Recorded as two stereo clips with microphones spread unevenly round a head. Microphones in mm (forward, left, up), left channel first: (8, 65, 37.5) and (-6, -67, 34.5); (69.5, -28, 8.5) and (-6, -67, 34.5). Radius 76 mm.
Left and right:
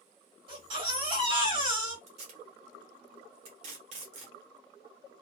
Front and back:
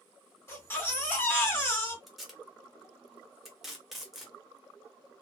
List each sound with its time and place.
0.5 s a baby crying: 40° right, 1.7 m
2.1 s tape being pulled: 90° right, 0.9 m